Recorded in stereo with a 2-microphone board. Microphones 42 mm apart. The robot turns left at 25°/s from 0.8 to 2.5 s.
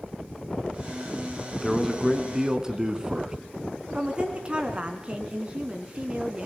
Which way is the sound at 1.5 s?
5° left (ahead or behind).